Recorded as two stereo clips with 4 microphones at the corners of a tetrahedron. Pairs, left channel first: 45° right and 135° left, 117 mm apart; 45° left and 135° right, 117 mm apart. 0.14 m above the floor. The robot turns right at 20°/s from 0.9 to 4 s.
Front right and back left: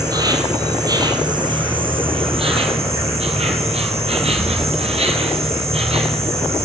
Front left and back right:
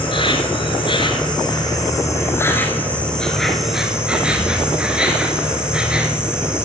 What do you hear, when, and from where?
0.0 s an insect: 80° left, 1.5 m; by 6.7 s 145° left, 1.5 m